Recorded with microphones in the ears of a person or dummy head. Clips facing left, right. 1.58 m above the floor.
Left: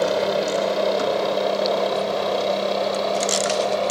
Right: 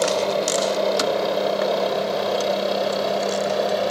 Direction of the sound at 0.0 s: Centre (ahead or behind).